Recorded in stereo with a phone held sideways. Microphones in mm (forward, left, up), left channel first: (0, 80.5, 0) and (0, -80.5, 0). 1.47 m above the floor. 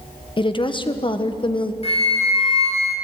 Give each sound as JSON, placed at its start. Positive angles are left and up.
{"t": 0.4, "sound": "a woman speaking", "side_deg": 30, "distance_m": 1.4}
{"t": 1.8, "sound": "a flute", "side_deg": 40, "distance_m": 5.0}